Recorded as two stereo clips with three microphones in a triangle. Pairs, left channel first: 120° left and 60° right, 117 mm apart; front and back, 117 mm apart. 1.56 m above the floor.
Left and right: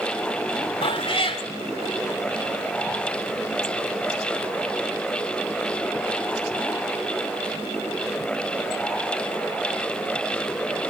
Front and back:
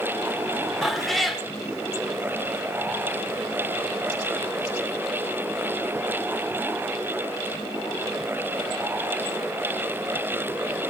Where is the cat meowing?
90° left, 2 m.